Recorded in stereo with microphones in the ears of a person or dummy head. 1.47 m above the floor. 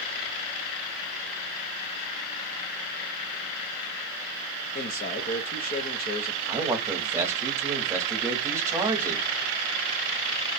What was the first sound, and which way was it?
A man speaking, 35° left (ahead or behind).